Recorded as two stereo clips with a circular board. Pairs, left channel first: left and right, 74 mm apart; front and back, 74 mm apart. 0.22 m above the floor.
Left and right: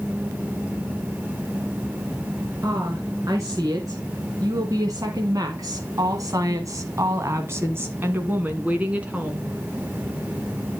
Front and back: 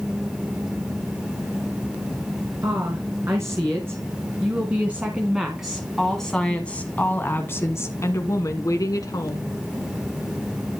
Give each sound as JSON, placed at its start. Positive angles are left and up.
{"t": 2.6, "sound": "a woman speaking", "azimuth_deg": -135, "distance_m": 3.0}